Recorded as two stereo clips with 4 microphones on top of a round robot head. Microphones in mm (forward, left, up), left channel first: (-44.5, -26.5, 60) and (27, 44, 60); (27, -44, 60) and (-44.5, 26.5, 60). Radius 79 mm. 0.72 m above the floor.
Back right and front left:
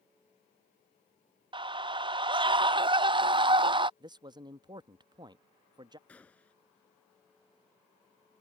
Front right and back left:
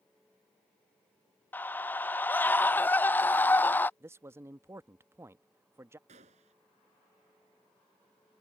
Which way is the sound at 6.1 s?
145° left.